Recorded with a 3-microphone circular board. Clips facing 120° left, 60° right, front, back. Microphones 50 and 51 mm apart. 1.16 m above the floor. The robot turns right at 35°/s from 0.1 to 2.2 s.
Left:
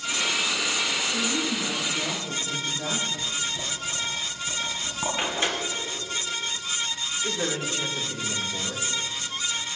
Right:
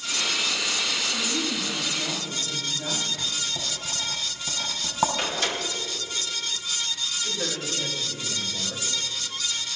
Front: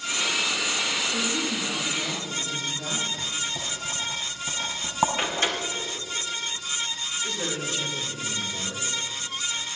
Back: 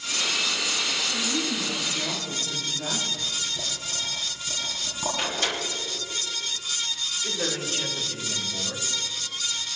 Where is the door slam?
55° left, 3 m.